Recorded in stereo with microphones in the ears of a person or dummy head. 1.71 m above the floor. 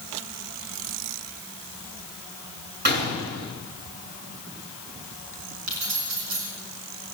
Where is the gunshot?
55° right (ahead or behind), 7 m.